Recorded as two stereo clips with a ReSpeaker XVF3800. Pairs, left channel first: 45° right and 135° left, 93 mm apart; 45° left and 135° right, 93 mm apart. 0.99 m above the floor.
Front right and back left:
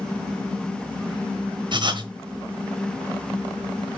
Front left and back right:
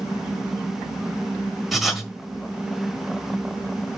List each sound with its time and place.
1.7 s writing: 135° left, 1.1 m